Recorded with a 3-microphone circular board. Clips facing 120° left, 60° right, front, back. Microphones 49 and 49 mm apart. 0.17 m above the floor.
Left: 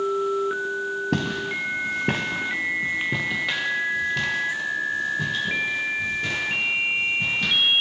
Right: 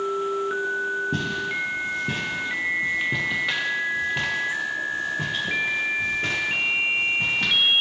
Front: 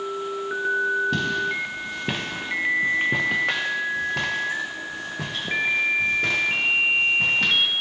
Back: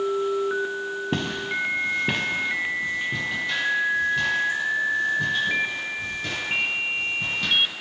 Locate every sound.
1.1 s footsteps: 120° left, 1.0 m; by 7.5 s 10° right, 3 m